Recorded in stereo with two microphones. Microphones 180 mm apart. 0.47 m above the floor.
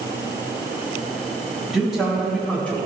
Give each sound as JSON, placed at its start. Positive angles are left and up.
{"t": 1.7, "sound": "a man speaking", "side_deg": 0, "distance_m": 3.0}